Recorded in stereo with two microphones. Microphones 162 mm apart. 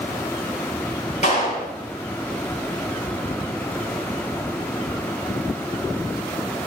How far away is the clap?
About 5.5 m.